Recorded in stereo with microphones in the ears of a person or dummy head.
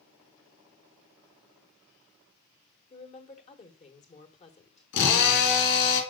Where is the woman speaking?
35° left (ahead or behind), 1.3 m.